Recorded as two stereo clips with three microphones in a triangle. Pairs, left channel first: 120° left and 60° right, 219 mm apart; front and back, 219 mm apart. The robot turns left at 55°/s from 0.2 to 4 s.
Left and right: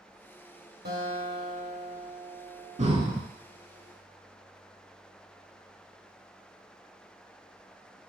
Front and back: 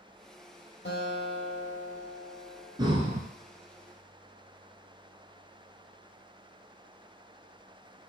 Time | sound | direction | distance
0.8 | a guitar | 25° right | 1.7 m
2.8 | breathing | 115° right | 0.5 m